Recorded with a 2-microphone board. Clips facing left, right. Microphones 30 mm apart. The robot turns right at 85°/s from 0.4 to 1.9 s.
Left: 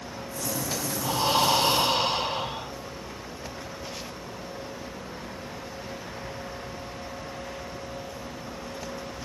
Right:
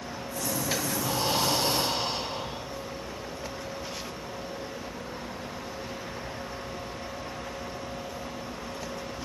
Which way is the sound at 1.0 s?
15° left.